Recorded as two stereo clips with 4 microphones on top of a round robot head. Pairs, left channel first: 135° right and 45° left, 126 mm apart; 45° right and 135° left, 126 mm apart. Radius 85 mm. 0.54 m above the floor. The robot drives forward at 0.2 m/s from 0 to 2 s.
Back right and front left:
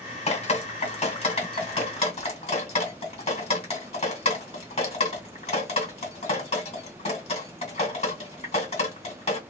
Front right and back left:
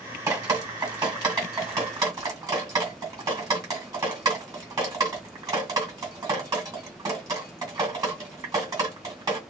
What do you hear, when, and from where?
0.3 s dripping: 165° right, 1.6 m; by 9.4 s 170° right, 1.9 m